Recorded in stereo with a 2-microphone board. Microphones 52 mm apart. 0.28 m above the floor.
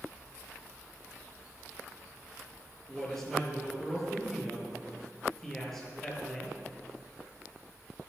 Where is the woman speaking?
5° left (ahead or behind), 5.5 m.